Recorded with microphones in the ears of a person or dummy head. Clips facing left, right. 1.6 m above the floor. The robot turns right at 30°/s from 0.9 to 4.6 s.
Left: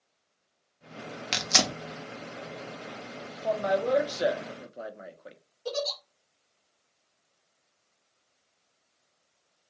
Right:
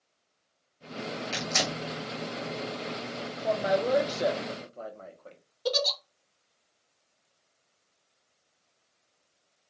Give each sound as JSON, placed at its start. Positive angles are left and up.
{"t": 1.3, "sound": "tearing paper", "side_deg": 75, "distance_m": 0.6}
{"t": 3.4, "sound": "a man speaking", "azimuth_deg": -15, "distance_m": 0.5}
{"t": 5.7, "sound": "a giggle", "side_deg": -65, "distance_m": 0.5}